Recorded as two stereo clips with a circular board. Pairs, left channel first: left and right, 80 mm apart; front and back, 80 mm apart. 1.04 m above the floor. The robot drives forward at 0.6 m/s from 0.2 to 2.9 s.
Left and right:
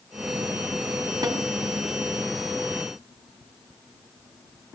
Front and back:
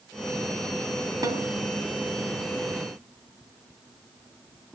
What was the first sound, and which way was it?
A snare drum, 135° right.